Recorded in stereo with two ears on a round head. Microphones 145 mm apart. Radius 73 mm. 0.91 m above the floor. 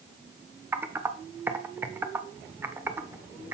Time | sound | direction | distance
0.7 | typing on a keyboard | 15° right (ahead or behind) | 0.6 m